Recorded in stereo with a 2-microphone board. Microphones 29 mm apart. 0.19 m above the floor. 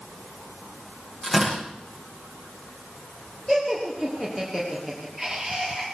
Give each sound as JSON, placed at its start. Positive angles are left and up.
{"t": 1.2, "sound": "tearing paper", "side_deg": 5, "distance_m": 8.0}
{"t": 3.5, "sound": "laughter", "side_deg": 5, "distance_m": 3.5}